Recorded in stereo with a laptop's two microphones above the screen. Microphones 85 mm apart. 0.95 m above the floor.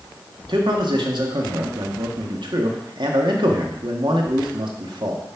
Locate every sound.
0.5 s a man speaking: 70° right (ahead or behind), 1.8 m